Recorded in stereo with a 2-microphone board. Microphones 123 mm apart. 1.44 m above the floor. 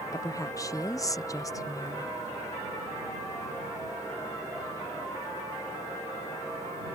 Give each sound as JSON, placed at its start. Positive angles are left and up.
{"t": 0.1, "sound": "a woman speaking", "side_deg": 25}